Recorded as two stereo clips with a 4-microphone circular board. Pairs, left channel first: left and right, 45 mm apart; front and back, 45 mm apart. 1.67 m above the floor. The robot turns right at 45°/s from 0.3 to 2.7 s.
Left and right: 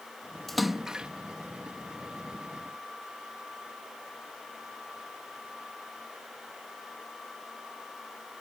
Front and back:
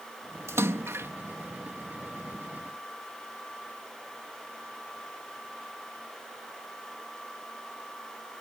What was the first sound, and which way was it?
A splash, 175° left.